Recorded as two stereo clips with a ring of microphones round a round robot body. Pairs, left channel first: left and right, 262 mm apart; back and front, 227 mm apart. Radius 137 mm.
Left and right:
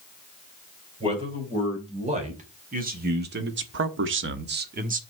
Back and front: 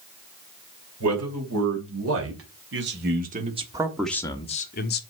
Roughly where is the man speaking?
Ahead.